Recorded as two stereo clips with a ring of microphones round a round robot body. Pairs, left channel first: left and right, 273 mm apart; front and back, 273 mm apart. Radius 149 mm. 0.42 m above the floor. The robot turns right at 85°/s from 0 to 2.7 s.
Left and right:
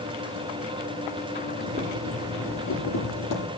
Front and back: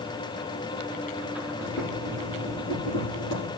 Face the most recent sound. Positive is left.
turn(degrees=55)